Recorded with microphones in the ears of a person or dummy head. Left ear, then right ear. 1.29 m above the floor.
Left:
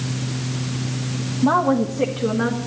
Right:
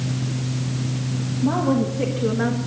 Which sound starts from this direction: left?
A woman speaking, at 1.4 s.